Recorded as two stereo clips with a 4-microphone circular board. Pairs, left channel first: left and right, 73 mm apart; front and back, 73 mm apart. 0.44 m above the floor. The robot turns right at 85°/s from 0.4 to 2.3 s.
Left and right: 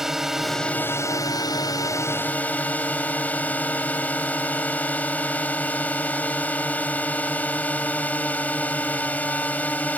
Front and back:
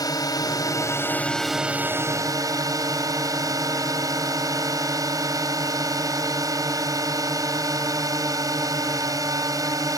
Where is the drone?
5° right; by 10.0 s 155° left.